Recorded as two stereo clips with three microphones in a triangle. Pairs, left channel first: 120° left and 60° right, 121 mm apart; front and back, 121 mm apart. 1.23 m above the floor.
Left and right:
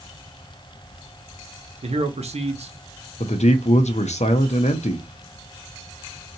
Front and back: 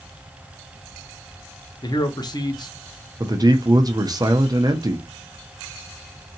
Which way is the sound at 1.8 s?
50° right.